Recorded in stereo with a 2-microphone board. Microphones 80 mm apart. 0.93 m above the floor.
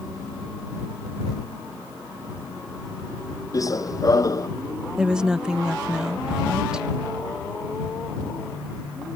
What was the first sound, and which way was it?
Running footsteps, 40° left (ahead or behind).